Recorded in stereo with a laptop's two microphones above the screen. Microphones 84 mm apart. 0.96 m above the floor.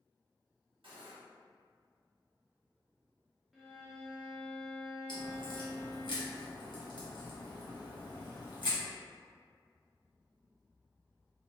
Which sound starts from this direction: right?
Cutlery clinking, at 0.8 s.